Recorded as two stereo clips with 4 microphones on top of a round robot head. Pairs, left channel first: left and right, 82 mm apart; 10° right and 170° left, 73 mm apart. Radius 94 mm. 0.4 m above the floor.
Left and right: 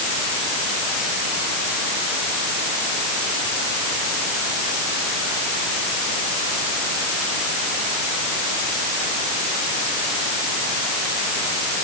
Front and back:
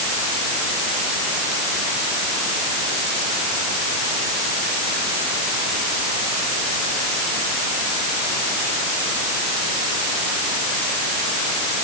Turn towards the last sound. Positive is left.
No sound to turn to.